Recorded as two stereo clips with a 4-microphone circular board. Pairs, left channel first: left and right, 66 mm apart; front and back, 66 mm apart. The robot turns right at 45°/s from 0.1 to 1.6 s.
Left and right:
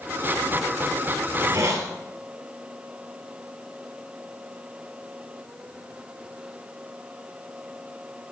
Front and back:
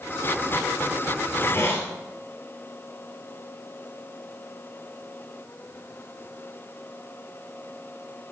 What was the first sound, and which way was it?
A hiss, 65° right.